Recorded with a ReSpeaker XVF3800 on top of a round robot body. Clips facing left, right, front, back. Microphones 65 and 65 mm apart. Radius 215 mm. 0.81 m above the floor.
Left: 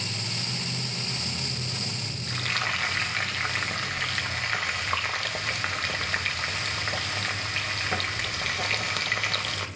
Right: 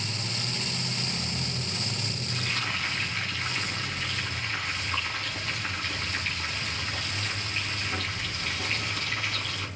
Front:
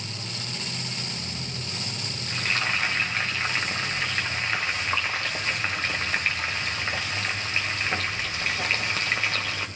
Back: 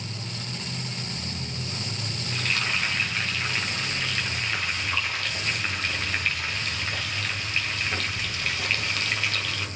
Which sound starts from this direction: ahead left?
Frying, at 2.3 s.